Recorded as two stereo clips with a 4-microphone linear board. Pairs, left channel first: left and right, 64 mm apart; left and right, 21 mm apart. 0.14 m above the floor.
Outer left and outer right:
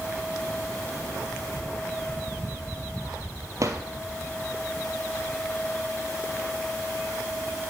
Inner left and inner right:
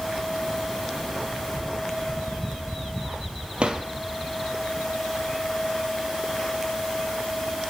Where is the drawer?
55° right (ahead or behind), 1.1 m.